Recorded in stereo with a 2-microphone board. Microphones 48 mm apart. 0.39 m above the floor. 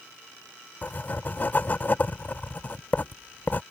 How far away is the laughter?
No laughter in this recording.